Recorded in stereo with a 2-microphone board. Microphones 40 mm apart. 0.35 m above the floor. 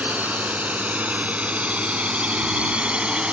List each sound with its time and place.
0.0 s a drone: 40° right (ahead or behind); by 3.3 s 25° right (ahead or behind)